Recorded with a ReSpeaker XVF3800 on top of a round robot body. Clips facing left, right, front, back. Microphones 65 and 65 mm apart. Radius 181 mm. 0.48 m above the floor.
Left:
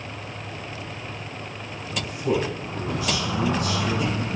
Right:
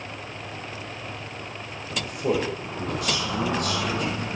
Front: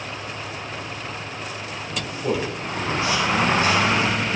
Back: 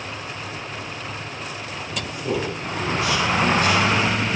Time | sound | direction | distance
1.9 | a man speaking | 60° right | 3.5 m